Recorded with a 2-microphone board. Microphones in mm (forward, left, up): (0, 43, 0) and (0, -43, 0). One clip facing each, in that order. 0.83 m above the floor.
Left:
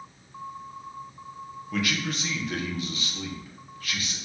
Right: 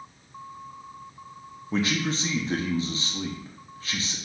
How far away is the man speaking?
About 0.6 m.